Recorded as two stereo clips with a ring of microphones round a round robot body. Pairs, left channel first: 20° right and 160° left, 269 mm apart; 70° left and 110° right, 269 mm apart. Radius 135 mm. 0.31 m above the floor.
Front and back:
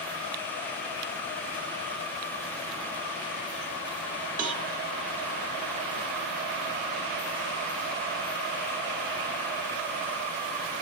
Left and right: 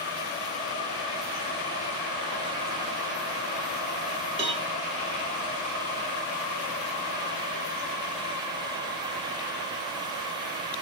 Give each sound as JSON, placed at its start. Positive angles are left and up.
{"t": 4.4, "sound": "a cowbell", "azimuth_deg": -160, "distance_m": 1.0}